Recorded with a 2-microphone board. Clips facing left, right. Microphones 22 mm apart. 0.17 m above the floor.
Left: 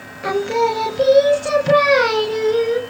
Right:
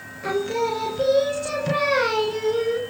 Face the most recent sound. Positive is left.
turn(degrees=20)  # may be behind; listen again after turning